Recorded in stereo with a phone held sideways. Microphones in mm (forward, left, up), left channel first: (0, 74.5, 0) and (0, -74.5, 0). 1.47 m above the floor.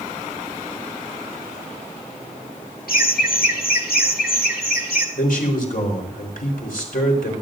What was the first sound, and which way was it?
Laughter, 80° left.